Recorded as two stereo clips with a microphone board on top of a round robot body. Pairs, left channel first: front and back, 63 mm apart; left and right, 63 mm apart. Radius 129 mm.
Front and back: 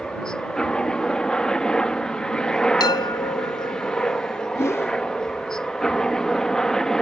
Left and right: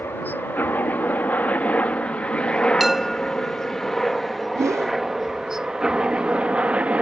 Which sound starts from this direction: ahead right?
A whoosh, at 4.5 s.